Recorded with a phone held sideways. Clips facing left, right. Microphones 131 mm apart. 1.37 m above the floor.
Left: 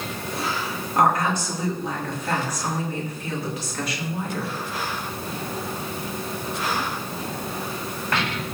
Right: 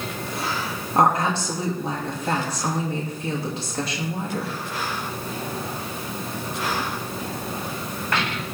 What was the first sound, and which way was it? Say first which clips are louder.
A woman speaking: right 1 dB; 30° right (ahead or behind).